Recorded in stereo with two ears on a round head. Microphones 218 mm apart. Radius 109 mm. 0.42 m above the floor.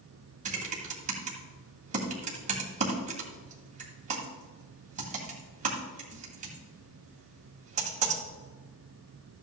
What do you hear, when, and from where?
0.5 s typing on a keyboard: 30° right (ahead or behind), 2 m